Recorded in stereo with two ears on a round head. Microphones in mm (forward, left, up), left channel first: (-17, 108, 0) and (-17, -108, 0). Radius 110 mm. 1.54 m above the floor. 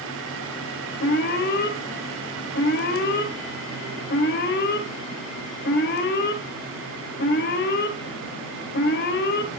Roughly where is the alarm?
Left.